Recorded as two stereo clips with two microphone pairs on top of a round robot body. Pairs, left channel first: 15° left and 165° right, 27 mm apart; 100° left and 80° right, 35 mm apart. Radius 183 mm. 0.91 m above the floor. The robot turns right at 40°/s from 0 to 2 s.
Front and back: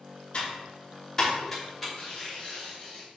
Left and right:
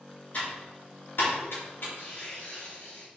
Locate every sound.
0.3 s typing on a keyboard: 45° left, 3 m; by 1.9 s 110° left, 3 m
1.9 s tearing paper: 85° left, 2.0 m